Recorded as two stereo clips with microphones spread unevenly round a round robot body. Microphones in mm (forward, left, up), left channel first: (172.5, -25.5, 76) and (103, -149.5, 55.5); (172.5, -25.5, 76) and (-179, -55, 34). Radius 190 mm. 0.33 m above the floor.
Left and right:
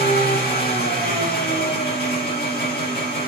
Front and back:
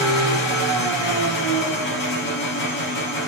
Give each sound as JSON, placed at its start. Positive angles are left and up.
{"t": 0.0, "sound": "an engine running", "azimuth_deg": 65, "distance_m": 3.5}